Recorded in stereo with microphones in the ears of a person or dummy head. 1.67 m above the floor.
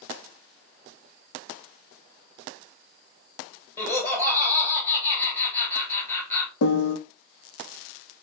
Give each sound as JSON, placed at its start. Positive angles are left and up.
{"t": 3.8, "sound": "laughter", "side_deg": 10, "distance_m": 2.5}
{"t": 6.6, "sound": "a piano", "side_deg": 75, "distance_m": 0.8}